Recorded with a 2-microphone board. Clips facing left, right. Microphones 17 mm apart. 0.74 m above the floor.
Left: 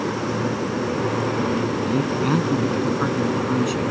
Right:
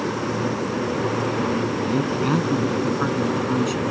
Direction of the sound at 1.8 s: Centre (ahead or behind).